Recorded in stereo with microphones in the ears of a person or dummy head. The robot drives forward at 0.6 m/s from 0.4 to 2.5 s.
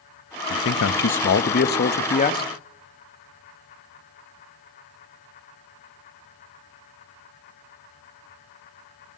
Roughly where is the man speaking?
Left.